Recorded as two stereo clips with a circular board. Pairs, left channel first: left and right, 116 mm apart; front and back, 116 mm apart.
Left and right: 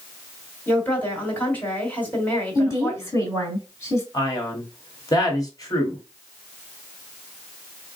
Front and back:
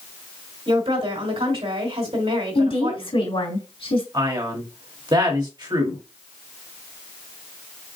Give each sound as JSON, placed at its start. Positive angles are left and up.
{"t": 0.7, "sound": "a woman speaking", "azimuth_deg": 165, "distance_m": 2.5}
{"t": 2.5, "sound": "a woman speaking", "azimuth_deg": 30, "distance_m": 3.0}
{"t": 4.1, "sound": "a man speaking", "azimuth_deg": 140, "distance_m": 1.8}